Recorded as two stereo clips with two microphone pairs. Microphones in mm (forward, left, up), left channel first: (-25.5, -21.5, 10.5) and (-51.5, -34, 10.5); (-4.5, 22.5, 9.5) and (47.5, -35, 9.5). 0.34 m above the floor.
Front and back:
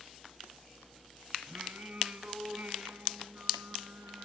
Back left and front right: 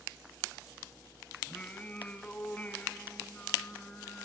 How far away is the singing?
About 3.5 m.